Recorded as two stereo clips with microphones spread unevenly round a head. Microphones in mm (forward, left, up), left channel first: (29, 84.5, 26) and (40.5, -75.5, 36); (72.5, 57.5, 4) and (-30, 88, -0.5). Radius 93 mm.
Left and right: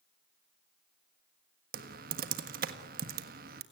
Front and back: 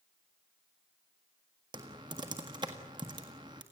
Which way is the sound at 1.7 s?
130° right.